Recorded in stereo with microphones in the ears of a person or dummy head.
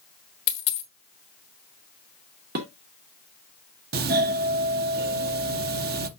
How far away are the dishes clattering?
About 1.8 m.